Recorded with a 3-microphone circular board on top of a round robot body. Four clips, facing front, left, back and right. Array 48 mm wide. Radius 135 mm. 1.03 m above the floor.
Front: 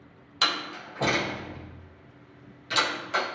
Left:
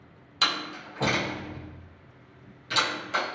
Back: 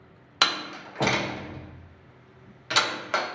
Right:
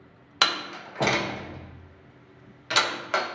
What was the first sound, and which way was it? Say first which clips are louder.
A door slam: right 2 dB, back 2 dB; 130° right.